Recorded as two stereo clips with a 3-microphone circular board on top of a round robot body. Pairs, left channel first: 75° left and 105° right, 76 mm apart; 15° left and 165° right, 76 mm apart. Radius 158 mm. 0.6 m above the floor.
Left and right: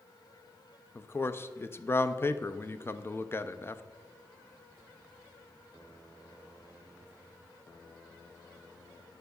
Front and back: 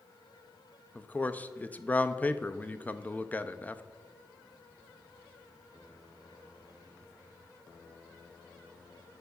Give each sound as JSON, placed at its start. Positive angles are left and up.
{"t": 0.9, "sound": "a man speaking", "azimuth_deg": 65, "distance_m": 0.6}